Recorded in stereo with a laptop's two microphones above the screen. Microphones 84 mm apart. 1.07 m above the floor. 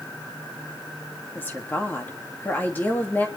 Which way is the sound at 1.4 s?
25° left (ahead or behind).